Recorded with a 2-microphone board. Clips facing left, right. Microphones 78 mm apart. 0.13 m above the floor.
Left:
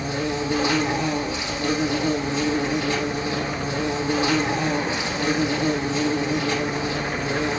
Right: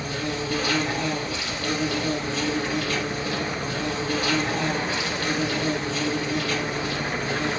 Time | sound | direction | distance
0.0 | an insect | 20° left (ahead or behind) | 3.5 m